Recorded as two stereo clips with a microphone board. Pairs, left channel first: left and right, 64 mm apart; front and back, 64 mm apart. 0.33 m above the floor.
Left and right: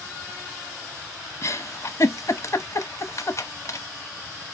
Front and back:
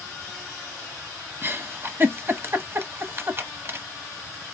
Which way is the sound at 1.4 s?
130° left.